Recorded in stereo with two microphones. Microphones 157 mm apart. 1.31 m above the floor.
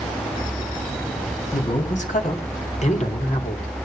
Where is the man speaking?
60° left (ahead or behind), 3.5 m; by 3.7 s 45° left (ahead or behind), 4 m.